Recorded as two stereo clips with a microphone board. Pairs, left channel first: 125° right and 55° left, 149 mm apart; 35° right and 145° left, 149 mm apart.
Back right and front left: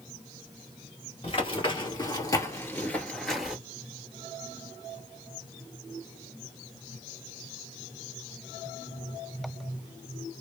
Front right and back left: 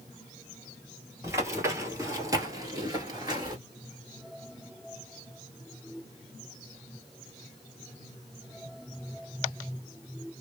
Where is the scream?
I don't hear a scream.